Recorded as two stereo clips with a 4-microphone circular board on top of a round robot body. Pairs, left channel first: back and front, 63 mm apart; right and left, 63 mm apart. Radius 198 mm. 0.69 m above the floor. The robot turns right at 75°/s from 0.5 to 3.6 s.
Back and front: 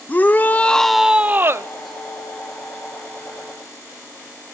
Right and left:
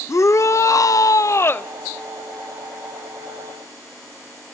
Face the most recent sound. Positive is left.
turn(degrees=110)